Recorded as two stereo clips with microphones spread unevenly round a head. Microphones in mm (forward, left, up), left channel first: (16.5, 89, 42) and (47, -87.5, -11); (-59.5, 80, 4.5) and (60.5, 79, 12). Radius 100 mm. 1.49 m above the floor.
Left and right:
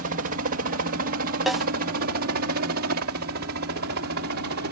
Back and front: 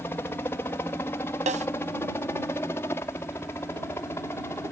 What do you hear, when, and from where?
0.0 s a helicopter: 105° right
1.5 s a snare drum: 15° left